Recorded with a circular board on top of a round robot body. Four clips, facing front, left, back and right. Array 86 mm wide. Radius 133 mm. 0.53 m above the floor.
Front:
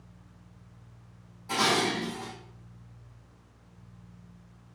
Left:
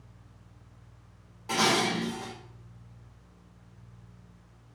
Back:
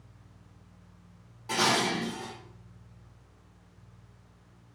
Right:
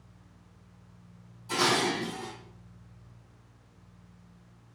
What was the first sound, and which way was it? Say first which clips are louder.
Dishes clattering: left 1 dB, even; 110° left.